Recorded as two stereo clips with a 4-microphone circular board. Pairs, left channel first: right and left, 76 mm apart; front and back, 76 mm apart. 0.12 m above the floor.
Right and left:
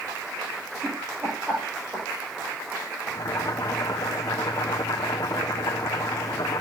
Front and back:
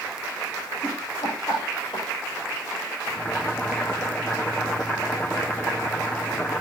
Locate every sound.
0.8 s laughter: 30° left, 6 m
3.1 s boiling: 65° right, 1.2 m